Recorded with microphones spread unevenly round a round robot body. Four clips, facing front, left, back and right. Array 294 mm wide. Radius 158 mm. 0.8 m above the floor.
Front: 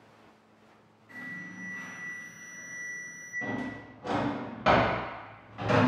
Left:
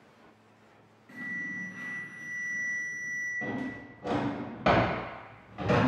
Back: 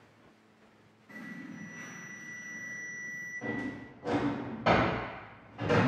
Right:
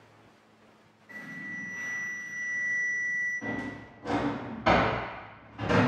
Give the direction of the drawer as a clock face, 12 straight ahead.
10 o'clock.